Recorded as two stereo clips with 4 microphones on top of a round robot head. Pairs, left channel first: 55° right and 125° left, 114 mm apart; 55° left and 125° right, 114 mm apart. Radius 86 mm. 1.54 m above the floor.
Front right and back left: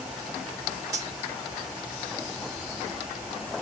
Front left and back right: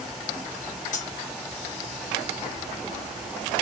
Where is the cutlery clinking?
65° left, 1.0 m.